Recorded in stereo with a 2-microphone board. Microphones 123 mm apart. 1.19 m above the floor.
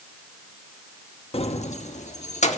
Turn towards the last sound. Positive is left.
turn(degrees=70)  # may be behind; listen again after turning